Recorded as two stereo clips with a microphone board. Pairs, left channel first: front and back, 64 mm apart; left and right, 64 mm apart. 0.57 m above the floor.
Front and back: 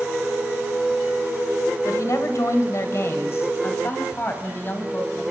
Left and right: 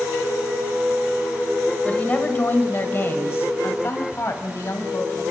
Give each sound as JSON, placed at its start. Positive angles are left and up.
{"t": 1.9, "sound": "a woman speaking", "azimuth_deg": 25, "distance_m": 2.5}